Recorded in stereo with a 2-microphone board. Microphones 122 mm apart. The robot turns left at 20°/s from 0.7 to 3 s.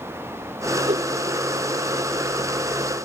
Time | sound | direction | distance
0.9 | a whoosh | 55° right (ahead or behind) | ?